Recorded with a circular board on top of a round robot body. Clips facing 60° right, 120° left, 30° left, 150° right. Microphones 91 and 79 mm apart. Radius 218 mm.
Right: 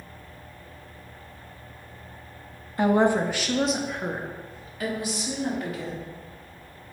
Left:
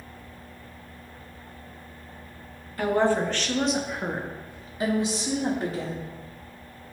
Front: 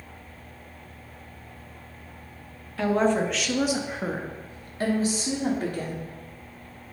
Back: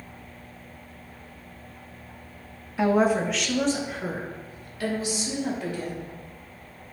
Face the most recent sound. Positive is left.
turn(degrees=65)